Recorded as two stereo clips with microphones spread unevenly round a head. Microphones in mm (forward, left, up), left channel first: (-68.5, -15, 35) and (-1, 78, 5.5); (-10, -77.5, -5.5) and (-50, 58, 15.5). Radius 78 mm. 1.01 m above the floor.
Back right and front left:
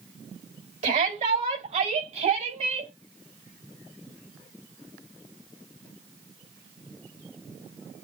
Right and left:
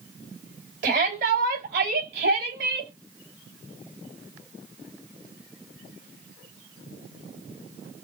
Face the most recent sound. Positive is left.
turn(degrees=75)